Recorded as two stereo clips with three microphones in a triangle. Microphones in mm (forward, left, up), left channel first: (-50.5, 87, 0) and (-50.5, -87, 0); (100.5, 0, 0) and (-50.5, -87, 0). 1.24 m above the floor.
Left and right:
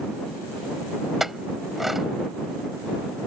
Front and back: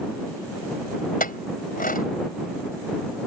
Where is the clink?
Straight ahead.